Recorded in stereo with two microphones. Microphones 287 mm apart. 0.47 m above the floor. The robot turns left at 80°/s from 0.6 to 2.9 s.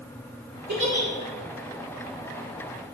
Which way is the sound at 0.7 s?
70° right (ahead or behind).